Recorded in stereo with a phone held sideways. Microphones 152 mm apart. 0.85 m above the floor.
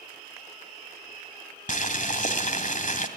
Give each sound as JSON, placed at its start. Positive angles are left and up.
{"t": 1.7, "sound": "boiling", "side_deg": 55, "distance_m": 2.0}